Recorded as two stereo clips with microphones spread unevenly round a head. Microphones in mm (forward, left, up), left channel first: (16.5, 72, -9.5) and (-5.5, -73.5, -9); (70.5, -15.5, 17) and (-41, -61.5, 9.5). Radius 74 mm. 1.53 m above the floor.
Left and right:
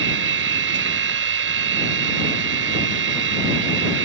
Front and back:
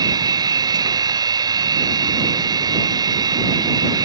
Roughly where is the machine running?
Right.